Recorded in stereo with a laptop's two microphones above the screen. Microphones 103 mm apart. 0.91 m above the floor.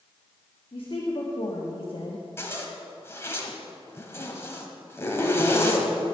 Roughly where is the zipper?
Left.